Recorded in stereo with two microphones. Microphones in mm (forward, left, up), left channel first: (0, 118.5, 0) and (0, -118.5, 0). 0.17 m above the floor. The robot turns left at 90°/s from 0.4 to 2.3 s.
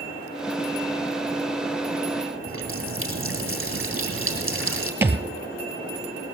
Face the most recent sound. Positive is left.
turn(degrees=-10)  # may be behind; listen again after turning